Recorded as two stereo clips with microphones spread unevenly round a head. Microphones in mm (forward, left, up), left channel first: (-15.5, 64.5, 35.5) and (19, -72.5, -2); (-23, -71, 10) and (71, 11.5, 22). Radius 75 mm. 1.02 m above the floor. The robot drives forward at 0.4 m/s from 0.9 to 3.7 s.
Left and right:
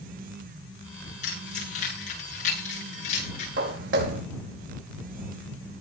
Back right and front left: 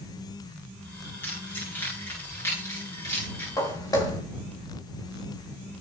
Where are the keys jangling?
145° left, 9.5 m.